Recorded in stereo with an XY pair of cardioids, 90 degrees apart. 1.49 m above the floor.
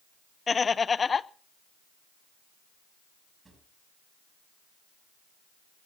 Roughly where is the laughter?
Ahead left.